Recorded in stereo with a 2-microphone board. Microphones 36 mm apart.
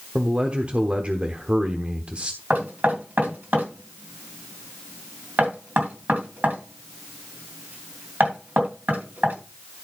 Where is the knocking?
60° right (ahead or behind), 2.5 m.